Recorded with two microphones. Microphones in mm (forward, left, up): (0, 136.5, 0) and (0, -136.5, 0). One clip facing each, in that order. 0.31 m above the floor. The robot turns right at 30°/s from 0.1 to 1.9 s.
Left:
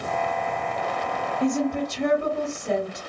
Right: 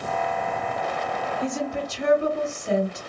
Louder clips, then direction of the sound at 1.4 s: Left 7 dB; 45° left (ahead or behind).